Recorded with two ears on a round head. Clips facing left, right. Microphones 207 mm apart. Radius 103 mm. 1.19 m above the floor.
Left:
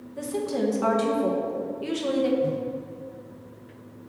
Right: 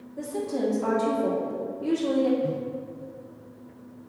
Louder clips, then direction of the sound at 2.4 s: Left 2 dB; 50° left (ahead or behind).